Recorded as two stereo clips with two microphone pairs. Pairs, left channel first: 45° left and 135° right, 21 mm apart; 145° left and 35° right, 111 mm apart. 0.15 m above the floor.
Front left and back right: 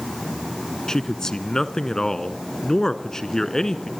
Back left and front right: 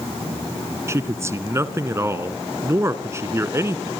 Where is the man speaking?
10° left, 1.5 m.